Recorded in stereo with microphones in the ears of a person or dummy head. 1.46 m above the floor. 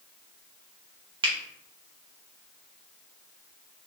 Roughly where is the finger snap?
Right.